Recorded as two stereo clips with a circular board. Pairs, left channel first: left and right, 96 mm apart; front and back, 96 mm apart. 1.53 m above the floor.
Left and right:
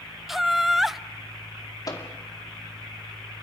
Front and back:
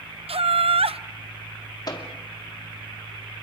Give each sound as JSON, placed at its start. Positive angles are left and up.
{"t": 0.3, "sound": "laughter", "azimuth_deg": 180, "distance_m": 0.6}
{"t": 1.9, "sound": "a microwave", "azimuth_deg": 40, "distance_m": 2.0}